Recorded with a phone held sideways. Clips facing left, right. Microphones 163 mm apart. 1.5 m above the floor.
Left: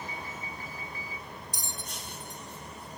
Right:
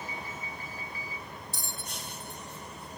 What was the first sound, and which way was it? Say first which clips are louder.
A bell: even; 15° left (ahead or behind).